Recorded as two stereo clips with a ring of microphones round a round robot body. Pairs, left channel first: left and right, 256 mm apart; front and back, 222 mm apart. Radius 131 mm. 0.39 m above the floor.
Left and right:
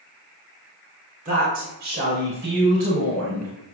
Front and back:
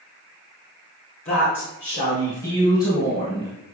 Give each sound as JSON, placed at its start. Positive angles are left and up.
{"t": 1.2, "sound": "a woman speaking", "azimuth_deg": -30, "distance_m": 3.5}